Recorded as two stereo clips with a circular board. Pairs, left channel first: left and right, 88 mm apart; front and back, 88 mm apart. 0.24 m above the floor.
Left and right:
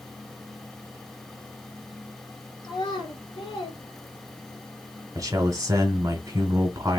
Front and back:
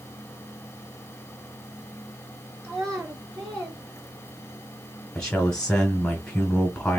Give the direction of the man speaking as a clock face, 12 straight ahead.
3 o'clock.